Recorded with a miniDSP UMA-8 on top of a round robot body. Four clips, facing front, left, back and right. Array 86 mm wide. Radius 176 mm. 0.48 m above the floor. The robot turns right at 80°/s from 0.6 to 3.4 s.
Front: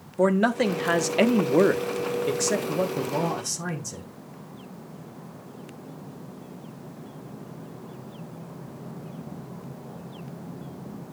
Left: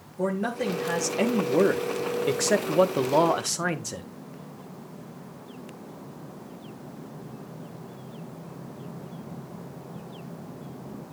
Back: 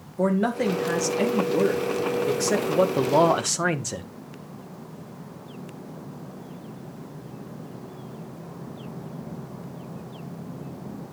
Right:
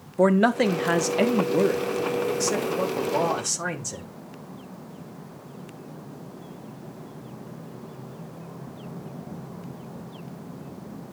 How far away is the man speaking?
About 1.3 m.